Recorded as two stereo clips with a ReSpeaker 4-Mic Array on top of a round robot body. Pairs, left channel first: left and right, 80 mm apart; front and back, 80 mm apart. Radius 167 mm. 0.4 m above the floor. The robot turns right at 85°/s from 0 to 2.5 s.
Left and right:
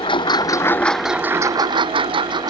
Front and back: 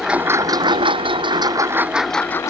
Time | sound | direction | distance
0.0 | a lawn mower | 95° left | ?